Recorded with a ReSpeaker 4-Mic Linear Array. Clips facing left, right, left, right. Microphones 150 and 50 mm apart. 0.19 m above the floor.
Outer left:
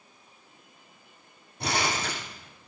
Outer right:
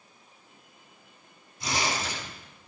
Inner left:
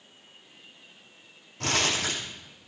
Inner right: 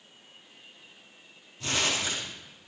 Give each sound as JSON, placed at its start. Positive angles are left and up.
{"t": 1.6, "sound": "crumpling", "side_deg": 65, "distance_m": 7.5}